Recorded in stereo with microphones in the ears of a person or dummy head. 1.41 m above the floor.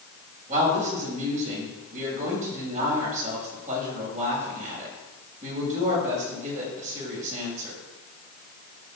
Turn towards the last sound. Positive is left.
turn(degrees=-40)  # may be behind; listen again after turning